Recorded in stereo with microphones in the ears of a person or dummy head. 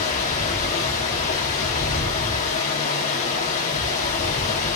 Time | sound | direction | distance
0.0 | running water | 40° left (ahead or behind) | 0.8 m